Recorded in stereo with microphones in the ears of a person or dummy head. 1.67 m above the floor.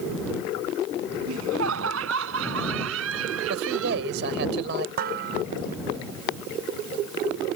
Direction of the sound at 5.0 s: 60° right (ahead or behind).